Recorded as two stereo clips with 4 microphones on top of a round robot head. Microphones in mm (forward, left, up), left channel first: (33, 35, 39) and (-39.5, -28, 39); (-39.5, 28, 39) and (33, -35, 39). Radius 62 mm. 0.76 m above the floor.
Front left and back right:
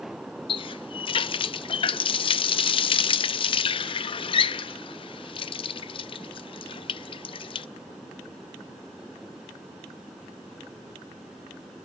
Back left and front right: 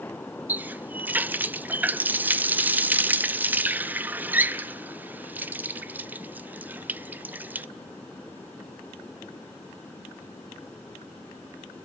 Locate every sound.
0.5 s a running tap: 30° left, 0.6 m